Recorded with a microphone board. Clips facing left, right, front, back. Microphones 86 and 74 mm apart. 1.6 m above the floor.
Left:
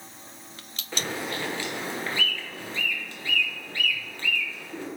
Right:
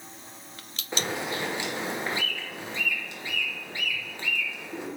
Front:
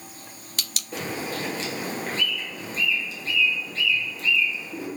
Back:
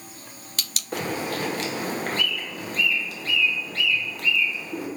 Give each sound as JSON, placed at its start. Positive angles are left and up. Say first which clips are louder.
{"t": 0.9, "sound": "a bird", "louder": "right 1 dB, back 3 dB", "azimuth_deg": -160, "distance_m": 1.2}